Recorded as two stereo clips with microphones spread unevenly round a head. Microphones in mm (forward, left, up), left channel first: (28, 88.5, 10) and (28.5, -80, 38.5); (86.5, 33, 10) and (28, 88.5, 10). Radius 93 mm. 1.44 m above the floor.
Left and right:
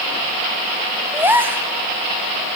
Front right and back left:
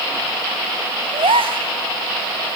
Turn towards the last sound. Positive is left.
turn(degrees=-170)